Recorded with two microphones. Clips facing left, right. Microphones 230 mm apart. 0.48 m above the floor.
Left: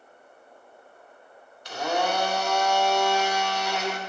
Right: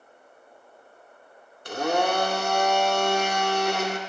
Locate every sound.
1.6 s a blender: 50° right (ahead or behind), 0.7 m